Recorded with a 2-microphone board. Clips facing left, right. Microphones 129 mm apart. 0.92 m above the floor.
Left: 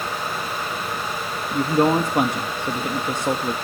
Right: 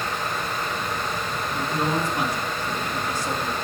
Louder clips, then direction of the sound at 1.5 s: Left 8 dB; 60° left (ahead or behind).